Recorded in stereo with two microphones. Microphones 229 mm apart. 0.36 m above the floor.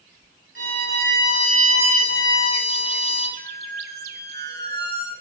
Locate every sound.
0.6 s a violin: 60° right (ahead or behind), 3 m
3.4 s a squeak: 50° right (ahead or behind), 1.4 m